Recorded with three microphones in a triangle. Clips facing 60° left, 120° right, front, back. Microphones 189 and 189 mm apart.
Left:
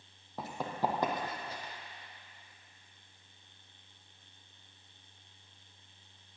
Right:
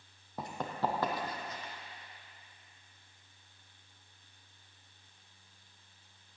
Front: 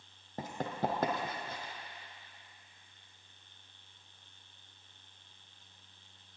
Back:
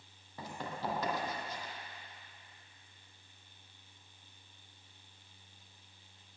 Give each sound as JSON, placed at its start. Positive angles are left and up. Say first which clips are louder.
{"t": 0.4, "sound": "running footsteps", "louder": "left 1 dB, front 5 dB", "azimuth_deg": -30, "distance_m": 2.5}